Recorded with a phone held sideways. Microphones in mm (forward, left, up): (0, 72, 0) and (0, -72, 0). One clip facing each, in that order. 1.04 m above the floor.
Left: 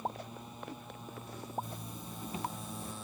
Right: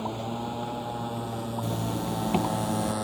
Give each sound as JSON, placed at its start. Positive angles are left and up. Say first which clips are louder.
{"t": 0.0, "sound": "a motorcycle", "louder": "right 10 dB", "side_deg": -75}
{"t": 1.6, "sound": "a zipper", "louder": "right 16 dB", "side_deg": -75}